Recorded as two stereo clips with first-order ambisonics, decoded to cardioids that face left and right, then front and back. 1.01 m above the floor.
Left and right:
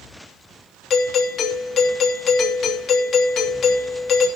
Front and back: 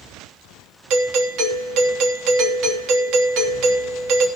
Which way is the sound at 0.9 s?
145° left.